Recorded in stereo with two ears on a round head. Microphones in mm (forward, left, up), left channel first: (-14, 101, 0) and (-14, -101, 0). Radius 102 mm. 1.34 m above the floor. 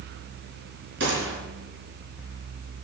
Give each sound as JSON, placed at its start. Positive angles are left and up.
{"t": 1.0, "sound": "a gunshot", "side_deg": -55, "distance_m": 4.0}